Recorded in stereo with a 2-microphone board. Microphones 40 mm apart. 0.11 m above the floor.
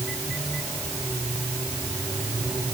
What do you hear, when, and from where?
Only background noise.